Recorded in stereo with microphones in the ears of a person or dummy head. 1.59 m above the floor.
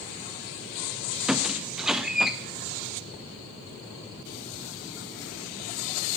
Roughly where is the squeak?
Centre.